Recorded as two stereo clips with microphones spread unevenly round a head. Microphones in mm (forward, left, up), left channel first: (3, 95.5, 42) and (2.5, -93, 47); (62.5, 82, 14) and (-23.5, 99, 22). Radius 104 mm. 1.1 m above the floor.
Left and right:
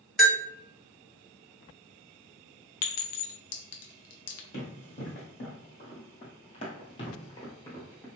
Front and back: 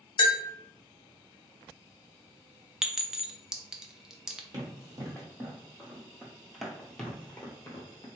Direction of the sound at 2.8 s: 85° left.